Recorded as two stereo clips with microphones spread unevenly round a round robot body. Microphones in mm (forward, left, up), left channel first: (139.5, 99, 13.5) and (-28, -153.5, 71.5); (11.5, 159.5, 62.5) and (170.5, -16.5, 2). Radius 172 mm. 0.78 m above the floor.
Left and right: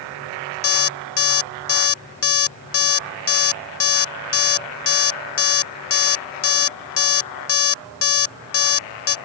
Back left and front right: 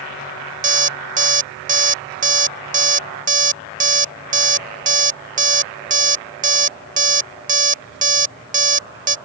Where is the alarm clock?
10° left.